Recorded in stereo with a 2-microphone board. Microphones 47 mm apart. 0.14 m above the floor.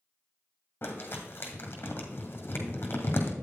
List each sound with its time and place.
0.8 s crumpling: 45° left (ahead or behind), 1.7 m